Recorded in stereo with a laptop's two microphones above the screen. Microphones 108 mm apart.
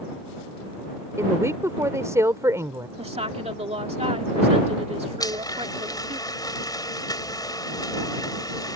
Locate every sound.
1.2 s a woman speaking: 30° right (ahead or behind)
3.0 s a woman speaking: 75° right (ahead or behind)
5.2 s a blender: 35° left (ahead or behind)